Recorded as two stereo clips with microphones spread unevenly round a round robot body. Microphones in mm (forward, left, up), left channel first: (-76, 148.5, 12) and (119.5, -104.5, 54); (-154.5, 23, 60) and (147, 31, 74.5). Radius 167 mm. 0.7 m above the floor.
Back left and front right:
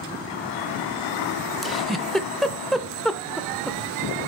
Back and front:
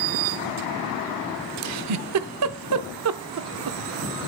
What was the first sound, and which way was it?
A giggle, 35° left.